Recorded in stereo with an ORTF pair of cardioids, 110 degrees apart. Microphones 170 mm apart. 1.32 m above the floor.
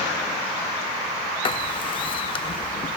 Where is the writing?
30° left, 0.8 m.